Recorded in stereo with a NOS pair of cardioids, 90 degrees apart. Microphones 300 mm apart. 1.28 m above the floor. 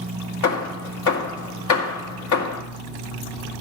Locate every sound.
0.4 s hammering: 70° left, 2 m